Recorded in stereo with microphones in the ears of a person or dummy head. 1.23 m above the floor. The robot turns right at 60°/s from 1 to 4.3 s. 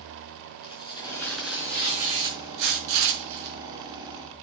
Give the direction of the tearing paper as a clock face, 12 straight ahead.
7 o'clock.